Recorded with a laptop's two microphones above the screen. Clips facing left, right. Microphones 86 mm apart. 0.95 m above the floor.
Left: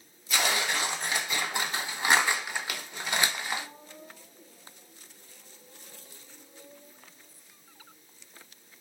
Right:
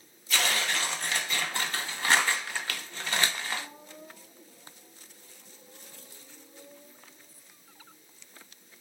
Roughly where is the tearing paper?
Centre.